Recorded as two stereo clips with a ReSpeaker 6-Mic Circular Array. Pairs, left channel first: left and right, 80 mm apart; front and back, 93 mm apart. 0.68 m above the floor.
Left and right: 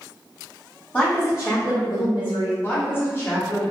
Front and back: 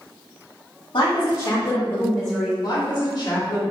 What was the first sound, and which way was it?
A woman speaking, 20° left.